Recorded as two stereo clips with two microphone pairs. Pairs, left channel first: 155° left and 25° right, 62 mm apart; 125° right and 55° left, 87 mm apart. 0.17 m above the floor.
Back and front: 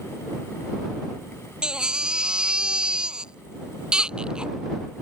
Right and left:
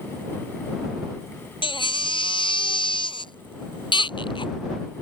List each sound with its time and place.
1.6 s a baby crying: 100° right